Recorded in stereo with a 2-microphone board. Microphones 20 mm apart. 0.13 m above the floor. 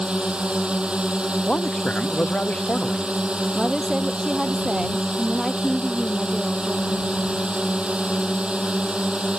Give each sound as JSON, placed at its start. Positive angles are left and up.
{"t": 0.0, "sound": "a drone", "side_deg": -70}
{"t": 1.5, "sound": "a man speaking", "side_deg": 80}
{"t": 3.5, "sound": "a woman speaking", "side_deg": -35}